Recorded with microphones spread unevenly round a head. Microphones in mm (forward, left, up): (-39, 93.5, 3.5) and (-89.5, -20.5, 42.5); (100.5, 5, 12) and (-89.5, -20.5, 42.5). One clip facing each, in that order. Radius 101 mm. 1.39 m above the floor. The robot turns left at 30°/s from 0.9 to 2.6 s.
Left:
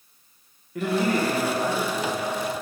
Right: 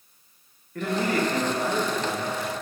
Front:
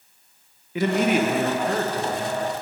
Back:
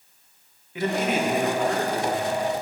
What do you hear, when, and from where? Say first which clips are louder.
0.8 s a man speaking: left 2 dB, front 4 dB; 25° right, 0.8 m; by 2.6 s 75° right, 0.8 m